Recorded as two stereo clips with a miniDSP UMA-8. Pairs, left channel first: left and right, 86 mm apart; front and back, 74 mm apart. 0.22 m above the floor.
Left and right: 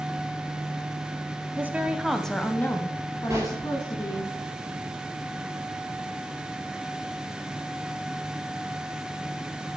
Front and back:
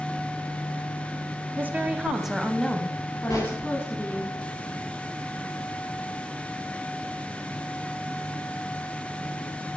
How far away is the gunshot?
About 3.5 m.